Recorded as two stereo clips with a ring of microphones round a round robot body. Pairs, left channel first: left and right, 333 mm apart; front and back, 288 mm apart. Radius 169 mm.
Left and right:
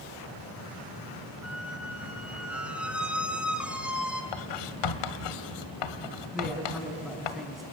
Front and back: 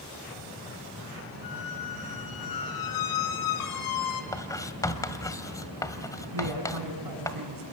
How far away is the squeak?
About 2.5 m.